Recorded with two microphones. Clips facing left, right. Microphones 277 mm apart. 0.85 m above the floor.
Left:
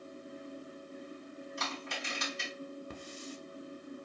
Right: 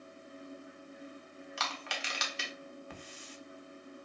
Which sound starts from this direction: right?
Crushing, at 1.6 s.